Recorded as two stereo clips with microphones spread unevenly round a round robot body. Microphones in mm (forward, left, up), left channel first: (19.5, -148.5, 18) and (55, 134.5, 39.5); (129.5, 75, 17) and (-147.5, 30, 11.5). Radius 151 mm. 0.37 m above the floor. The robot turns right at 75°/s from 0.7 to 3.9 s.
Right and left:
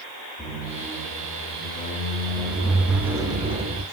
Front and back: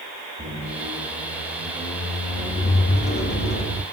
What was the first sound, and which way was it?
A squeak, straight behind.